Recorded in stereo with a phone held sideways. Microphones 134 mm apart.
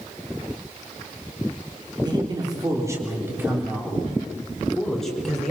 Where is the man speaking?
30° right (ahead or behind), 3.5 m; by 5.5 s 5° left (ahead or behind), 4.5 m.